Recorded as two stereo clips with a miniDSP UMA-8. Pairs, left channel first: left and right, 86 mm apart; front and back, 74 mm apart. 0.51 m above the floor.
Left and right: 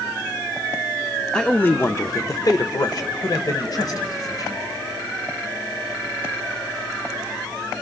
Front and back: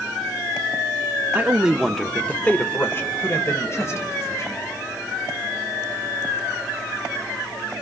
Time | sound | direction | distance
1.3 | a man speaking | 165° left | 0.7 m